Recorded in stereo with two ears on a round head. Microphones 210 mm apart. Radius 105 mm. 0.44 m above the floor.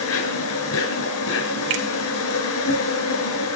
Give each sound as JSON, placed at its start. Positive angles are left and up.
{"t": 0.0, "sound": "an insect", "side_deg": 70, "distance_m": 5.0}
{"t": 1.7, "sound": "a finger snap", "side_deg": -60, "distance_m": 1.9}